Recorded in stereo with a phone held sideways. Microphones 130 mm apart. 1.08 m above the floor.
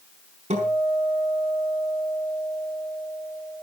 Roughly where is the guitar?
Right.